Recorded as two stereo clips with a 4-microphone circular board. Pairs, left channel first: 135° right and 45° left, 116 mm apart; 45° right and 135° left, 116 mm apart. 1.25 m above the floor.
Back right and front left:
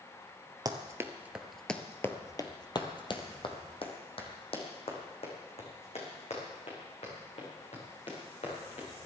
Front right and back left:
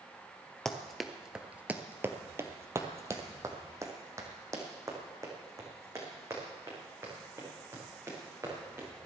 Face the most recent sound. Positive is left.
turn(degrees=-160)